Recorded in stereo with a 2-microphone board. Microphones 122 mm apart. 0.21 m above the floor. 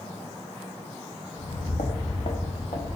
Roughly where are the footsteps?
Left.